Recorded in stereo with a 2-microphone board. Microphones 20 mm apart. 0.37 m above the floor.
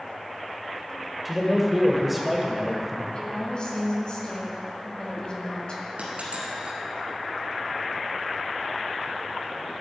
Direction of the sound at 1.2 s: 5° right (ahead or behind).